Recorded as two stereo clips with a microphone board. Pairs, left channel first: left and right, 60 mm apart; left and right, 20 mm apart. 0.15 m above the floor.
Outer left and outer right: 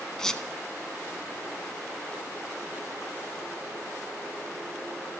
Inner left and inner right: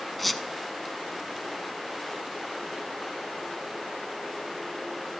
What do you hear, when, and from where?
0.2 s a squeak: 10° left (ahead or behind), 0.8 m